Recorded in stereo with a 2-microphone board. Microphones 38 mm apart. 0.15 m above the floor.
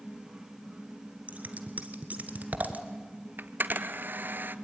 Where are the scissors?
45° right (ahead or behind), 1.4 m.